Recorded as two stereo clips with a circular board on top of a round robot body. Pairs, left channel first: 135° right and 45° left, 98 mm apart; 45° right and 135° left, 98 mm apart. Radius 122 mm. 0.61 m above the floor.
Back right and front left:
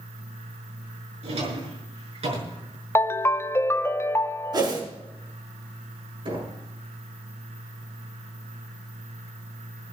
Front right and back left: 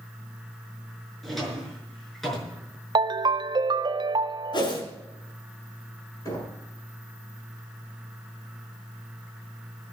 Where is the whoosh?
Straight ahead, 5.5 m.